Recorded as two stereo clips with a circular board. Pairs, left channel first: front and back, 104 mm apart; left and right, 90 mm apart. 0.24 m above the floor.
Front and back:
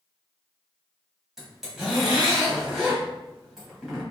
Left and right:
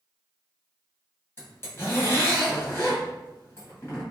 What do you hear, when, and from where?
1.4 s a zipper: 95° left, 1.3 m